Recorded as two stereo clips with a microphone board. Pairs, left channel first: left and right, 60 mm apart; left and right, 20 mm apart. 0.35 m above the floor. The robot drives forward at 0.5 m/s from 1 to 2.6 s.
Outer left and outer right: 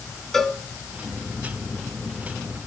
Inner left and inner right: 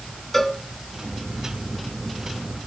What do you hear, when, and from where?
0.3 s a cowbell: 5° left (ahead or behind), 1.6 m